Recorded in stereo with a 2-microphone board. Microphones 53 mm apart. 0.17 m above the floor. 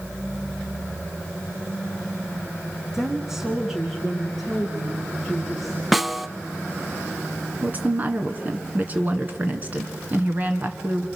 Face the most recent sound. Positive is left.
turn(degrees=-35)  # may be behind; listen again after turning